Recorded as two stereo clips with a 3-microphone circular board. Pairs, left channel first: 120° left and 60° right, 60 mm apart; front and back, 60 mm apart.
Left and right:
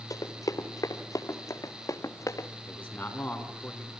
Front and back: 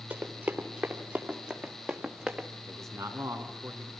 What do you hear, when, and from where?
0.1 s running footsteps: 125° left, 3 m; by 2.5 s 110° left, 1.8 m
2.7 s a man speaking: 175° left, 3.5 m